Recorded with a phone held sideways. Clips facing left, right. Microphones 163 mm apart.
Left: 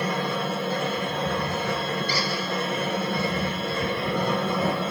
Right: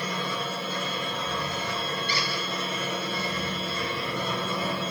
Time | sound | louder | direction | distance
0.0 | a machine running | left 5 dB | 55° left (ahead or behind) | 1.3 m
2.1 | a squeak | left 4 dB | 35° left (ahead or behind) | 3 m